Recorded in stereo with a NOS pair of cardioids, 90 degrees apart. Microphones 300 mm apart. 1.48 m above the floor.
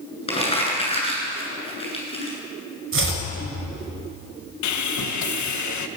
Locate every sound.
0.3 s crumpling: 20° left, 9.5 m
2.9 s chopping: 45° right, 5.5 m
4.6 s sawing: 70° left, 1.6 m